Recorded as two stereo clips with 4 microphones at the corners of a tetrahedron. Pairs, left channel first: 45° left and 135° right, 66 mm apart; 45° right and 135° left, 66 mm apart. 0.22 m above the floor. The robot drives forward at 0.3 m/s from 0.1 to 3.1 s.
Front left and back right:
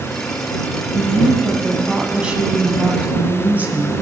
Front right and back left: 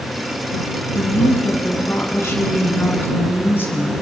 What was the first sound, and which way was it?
A woman speaking, 55° right.